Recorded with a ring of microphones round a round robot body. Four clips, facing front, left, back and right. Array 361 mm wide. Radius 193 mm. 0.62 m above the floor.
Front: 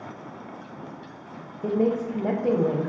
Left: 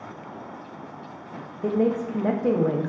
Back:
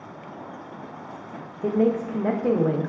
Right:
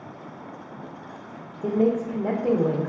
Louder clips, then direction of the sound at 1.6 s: Right 1 dB, back 2 dB; 140° left.